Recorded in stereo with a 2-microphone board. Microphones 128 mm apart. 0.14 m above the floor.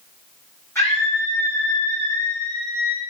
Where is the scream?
15° left (ahead or behind), 6 m.